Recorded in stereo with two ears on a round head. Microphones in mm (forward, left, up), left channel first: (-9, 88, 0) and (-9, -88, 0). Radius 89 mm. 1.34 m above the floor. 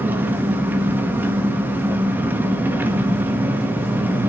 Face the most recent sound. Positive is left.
turn(degrees=-10)  # may be behind; listen again after turning